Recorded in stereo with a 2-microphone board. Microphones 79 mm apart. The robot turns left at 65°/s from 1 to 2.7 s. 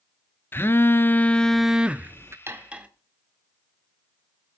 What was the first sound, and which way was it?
A phone buzzing, 40° left.